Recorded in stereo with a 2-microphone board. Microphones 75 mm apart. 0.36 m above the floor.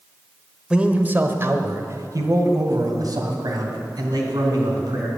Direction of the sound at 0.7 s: 15° right (ahead or behind).